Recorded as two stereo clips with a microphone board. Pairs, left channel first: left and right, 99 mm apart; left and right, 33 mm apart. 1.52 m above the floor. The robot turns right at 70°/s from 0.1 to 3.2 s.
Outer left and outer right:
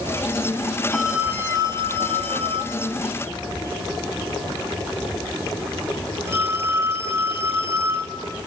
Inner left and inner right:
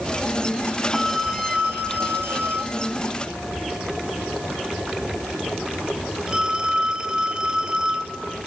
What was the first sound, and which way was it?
A phone ringing, 5° left (ahead or behind).